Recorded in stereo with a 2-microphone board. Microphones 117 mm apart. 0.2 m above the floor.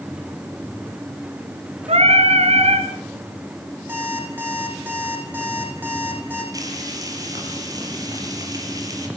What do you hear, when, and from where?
1.9 s singing: 65° right (ahead or behind), 3 m
3.9 s an alarm clock: 15° right (ahead or behind), 7 m
6.5 s frying: 30° right (ahead or behind), 5.5 m